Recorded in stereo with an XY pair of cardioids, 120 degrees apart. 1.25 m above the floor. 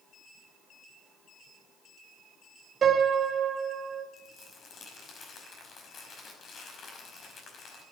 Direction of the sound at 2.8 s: 40° right.